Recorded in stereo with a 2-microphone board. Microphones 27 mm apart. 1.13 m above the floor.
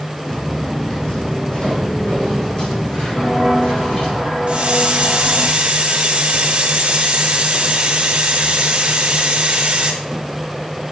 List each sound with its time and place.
0.3 s footsteps: 30° left (ahead or behind), 3 m; by 4.2 s 45° left (ahead or behind), 5.5 m
3.2 s footsteps: 20° left (ahead or behind), 1.7 m; by 5.5 s 45° left (ahead or behind), 3 m
4.5 s a hiss: 50° right (ahead or behind), 1.4 m